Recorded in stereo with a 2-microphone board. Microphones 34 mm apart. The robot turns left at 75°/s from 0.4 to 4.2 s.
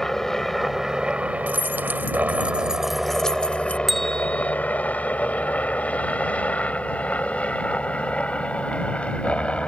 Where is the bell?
5° right (ahead or behind); by 4.5 s 20° left (ahead or behind).